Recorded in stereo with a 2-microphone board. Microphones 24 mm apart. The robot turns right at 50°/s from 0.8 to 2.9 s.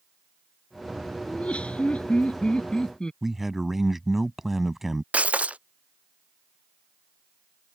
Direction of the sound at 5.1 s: 85° right.